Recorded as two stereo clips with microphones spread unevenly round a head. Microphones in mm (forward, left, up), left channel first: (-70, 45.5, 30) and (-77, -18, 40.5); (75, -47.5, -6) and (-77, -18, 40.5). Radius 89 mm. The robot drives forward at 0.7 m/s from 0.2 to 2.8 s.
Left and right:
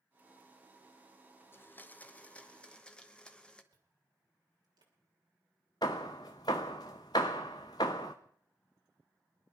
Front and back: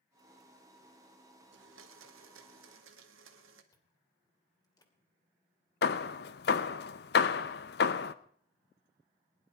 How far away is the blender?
About 0.9 m.